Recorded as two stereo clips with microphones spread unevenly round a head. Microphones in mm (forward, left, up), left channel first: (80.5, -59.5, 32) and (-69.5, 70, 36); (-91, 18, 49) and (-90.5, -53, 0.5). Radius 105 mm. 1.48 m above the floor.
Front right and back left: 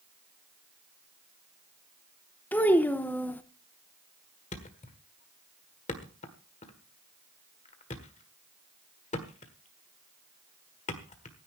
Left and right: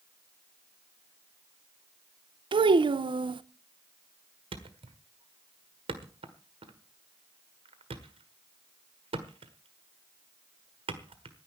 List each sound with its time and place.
2.5 s a child speaking: 120° right, 0.7 m
4.5 s a thud: 90° right, 1.5 m